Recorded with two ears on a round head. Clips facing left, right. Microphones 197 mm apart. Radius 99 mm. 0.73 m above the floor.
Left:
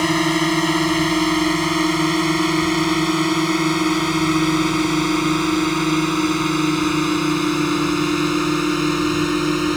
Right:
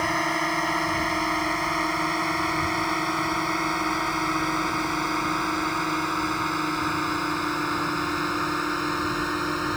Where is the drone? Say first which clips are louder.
Left 10 dB; 45° left (ahead or behind); by 9.8 s 40° left (ahead or behind).